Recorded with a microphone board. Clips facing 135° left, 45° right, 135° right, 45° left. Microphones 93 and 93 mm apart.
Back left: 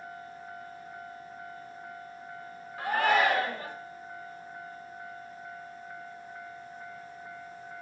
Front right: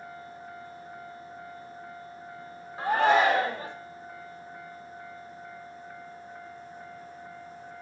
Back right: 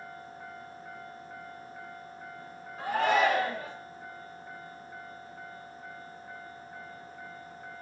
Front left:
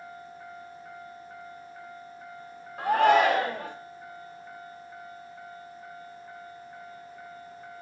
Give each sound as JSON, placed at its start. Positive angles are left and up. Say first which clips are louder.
{"t": 2.8, "sound": "a shout", "louder": "front right 3 dB, front left 5 dB", "azimuth_deg": 20, "distance_m": 0.7}